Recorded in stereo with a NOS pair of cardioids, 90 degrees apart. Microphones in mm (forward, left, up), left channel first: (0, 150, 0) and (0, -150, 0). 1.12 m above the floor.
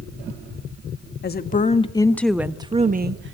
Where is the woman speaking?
35° left, 1.7 m; by 3.4 s 45° right, 1.4 m.